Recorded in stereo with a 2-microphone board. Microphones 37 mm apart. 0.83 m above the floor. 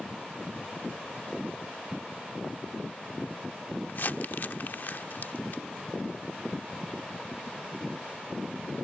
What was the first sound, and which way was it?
Crumpling, 55° left (ahead or behind).